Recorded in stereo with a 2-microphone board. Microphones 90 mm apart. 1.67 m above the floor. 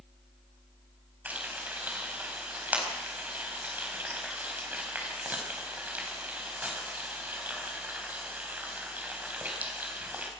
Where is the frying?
15° right (ahead or behind), 4.5 m.